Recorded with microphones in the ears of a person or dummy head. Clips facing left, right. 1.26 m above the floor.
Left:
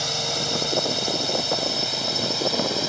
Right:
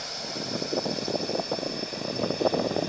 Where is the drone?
70° left (ahead or behind); by 2.9 s 80° left.